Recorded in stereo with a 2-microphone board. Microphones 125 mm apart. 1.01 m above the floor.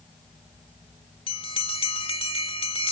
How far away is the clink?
No clink in this recording.